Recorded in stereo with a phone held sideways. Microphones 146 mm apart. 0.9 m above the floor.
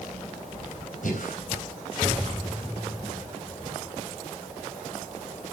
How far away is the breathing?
About 4 m.